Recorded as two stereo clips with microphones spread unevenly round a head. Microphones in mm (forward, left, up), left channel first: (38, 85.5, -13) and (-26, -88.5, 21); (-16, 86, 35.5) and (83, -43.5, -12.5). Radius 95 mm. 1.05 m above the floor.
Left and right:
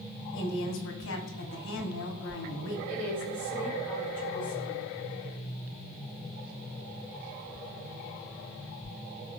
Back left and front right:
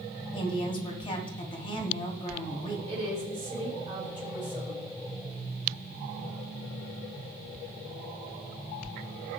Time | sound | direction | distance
0.3 | a woman speaking | 65° left | 2.5 m
2.9 | a woman speaking | 5° left | 5 m